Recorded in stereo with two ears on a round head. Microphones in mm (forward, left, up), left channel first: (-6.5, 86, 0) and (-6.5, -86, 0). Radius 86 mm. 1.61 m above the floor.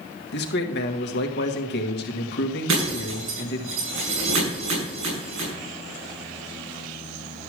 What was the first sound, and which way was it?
A man speaking, 60° left (ahead or behind).